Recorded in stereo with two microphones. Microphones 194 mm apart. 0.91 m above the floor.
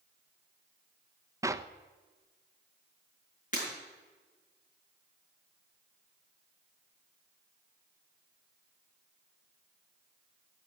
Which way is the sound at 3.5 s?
45° left (ahead or behind).